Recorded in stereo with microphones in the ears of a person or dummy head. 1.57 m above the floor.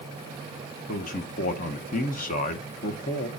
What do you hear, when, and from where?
0.9 s a man speaking: 45° left (ahead or behind), 1.1 m